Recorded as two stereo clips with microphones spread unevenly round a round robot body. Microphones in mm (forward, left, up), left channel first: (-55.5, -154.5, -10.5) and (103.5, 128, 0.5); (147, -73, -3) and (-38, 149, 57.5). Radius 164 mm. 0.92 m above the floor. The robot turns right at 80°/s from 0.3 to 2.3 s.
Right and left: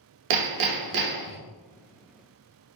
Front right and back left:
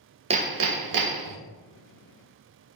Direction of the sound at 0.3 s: 60° left.